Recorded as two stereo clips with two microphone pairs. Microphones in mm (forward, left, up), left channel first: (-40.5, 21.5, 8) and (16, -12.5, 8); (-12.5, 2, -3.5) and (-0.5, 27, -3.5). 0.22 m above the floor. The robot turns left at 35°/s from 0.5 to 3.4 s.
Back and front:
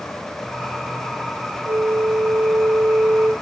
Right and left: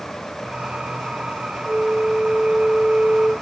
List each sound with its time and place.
1.6 s a flute: 10° left, 4 m; by 3.3 s 45° right, 4 m